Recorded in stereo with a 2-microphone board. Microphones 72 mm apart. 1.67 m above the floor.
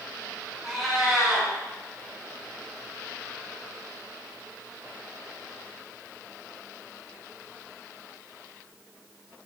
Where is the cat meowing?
5° right (ahead or behind), 1.9 m.